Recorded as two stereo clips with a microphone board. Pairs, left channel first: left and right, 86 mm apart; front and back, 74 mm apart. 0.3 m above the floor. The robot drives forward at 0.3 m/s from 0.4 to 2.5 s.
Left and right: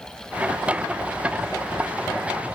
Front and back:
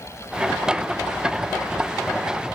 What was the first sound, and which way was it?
Only background noise.